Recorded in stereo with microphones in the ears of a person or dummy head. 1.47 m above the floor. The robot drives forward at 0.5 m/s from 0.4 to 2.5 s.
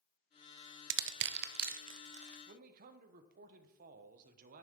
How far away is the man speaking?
About 1.1 m.